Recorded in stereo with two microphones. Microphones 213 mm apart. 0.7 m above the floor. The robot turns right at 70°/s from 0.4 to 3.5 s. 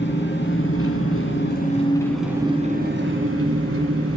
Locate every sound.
0.0 s an engine running: 55° left, 2.5 m; by 4.2 s 90° right, 2.5 m